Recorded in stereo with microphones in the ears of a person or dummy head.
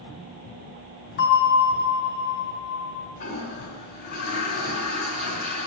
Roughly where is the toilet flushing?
Left.